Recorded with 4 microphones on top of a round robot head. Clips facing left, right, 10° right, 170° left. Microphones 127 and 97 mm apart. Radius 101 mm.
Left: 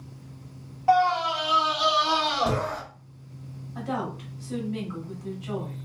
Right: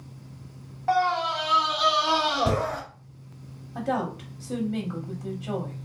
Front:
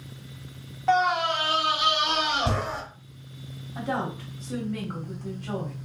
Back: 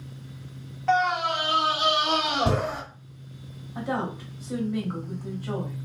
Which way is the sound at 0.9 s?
45° left.